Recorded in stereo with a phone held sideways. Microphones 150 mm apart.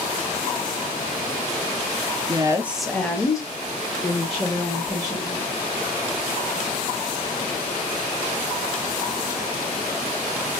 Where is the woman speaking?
30° right (ahead or behind), 0.7 m; by 5.5 s 50° left (ahead or behind), 2.5 m.